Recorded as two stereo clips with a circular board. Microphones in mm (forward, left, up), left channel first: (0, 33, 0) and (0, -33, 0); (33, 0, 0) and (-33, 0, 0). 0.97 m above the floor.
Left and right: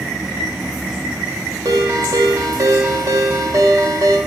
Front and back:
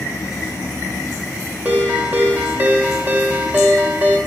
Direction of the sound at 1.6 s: 120° right.